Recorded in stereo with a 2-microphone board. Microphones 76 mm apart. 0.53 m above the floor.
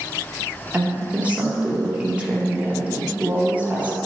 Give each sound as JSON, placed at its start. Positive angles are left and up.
{"t": 0.7, "sound": "a woman speaking", "side_deg": -20, "distance_m": 0.8}